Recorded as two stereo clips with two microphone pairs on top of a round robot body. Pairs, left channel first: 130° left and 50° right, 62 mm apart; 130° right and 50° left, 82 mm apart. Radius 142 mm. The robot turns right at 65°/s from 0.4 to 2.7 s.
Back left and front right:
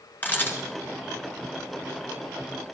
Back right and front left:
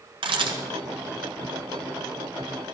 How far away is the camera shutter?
About 1.7 m.